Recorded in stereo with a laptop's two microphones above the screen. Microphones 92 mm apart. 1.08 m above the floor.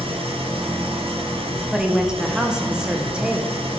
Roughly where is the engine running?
Right.